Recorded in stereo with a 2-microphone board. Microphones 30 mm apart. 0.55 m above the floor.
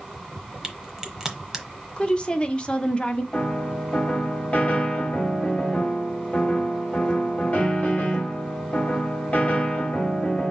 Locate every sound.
0.6 s a crack: 15° right (ahead or behind), 1.0 m
2.0 s a woman speaking: 30° left (ahead or behind), 0.8 m
3.3 s a piano: 40° left (ahead or behind), 1.9 m